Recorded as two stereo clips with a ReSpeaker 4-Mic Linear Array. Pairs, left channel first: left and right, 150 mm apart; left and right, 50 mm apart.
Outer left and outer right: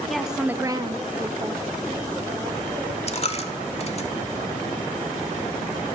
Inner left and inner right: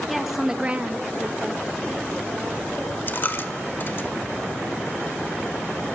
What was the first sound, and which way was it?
A woman speaking, centre (ahead or behind).